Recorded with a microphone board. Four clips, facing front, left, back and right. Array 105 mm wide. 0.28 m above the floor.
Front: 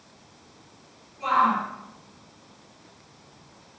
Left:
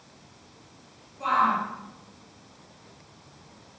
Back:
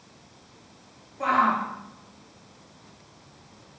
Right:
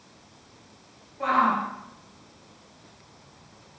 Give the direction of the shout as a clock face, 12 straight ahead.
5 o'clock.